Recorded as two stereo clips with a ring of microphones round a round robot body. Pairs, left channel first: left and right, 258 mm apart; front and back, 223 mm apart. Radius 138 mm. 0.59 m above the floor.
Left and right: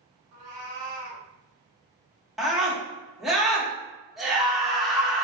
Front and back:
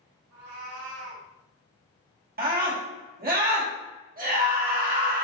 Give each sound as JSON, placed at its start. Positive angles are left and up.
{"t": 0.3, "sound": "a cat meowing", "azimuth_deg": -150, "distance_m": 1.6}
{"t": 2.4, "sound": "a scream", "azimuth_deg": 180, "distance_m": 1.4}